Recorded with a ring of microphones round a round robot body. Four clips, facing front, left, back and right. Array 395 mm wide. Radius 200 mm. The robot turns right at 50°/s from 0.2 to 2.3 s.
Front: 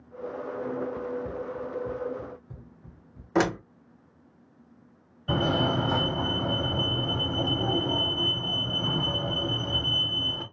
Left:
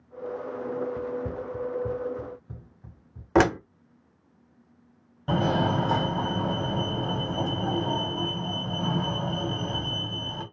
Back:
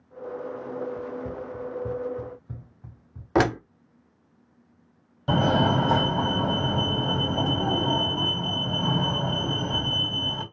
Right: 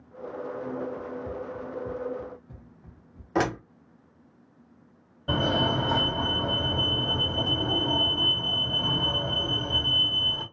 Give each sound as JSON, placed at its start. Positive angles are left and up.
{"t": 1.0, "sound": "running footsteps", "azimuth_deg": 70, "distance_m": 0.8}
{"t": 3.4, "sound": "a door slam", "azimuth_deg": 125, "distance_m": 0.7}
{"t": 5.3, "sound": "a fire alarm", "azimuth_deg": 170, "distance_m": 2.5}